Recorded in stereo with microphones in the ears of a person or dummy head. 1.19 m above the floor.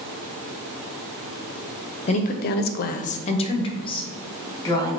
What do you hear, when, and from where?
2.1 s a woman speaking: 35° left (ahead or behind), 0.5 m; by 5.0 s 15° left (ahead or behind), 1.8 m